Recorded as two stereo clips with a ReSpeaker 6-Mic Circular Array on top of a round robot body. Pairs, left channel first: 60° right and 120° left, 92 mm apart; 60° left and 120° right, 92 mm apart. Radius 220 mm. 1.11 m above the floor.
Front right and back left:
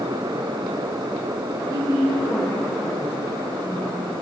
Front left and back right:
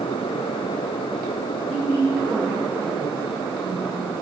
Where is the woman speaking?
155° left, 2 m; by 4.0 s 120° left, 3.5 m.